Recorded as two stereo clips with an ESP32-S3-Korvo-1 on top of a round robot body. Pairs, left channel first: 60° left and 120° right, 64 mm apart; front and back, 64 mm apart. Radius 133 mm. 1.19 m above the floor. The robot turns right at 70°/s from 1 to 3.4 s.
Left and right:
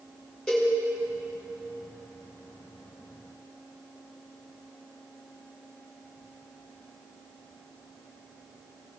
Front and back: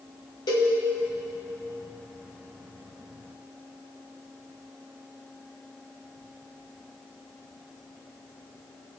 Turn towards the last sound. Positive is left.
turn(degrees=150)